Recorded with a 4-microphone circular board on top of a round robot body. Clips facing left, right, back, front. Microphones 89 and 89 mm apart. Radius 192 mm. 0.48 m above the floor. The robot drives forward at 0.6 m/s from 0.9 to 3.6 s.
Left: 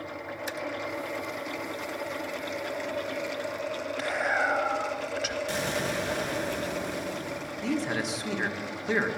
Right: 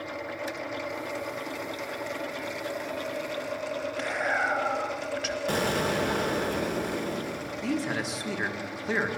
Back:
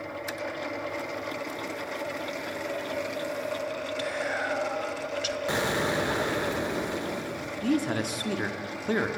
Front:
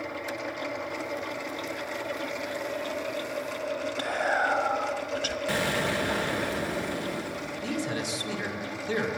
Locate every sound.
4.0 s whispering: 5° right, 1.1 m
5.5 s an explosion: 115° right, 1.5 m
7.6 s a man speaking: straight behind, 1.7 m